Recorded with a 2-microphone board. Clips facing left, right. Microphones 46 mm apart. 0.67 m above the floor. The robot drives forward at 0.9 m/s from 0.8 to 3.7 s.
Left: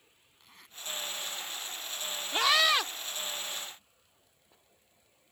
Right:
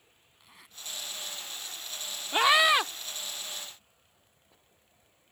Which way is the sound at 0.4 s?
5° right (ahead or behind).